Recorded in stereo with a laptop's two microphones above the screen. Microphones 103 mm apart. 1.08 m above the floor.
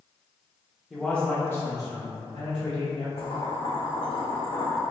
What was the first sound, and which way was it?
A man speaking, centre (ahead or behind).